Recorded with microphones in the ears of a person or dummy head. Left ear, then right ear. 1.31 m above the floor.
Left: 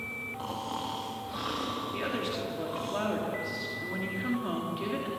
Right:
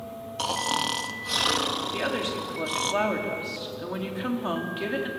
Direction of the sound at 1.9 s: 25° right (ahead or behind).